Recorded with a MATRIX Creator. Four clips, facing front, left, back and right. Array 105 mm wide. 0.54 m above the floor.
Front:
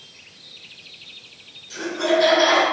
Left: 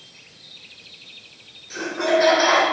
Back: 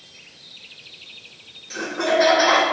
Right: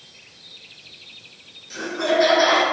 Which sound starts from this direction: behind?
Laughter, at 1.7 s.